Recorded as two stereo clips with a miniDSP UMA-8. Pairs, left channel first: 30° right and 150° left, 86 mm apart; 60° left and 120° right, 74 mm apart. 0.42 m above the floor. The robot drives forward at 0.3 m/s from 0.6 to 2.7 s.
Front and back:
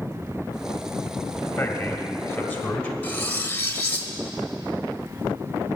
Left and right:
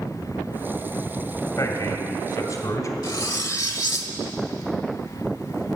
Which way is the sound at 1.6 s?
30° left.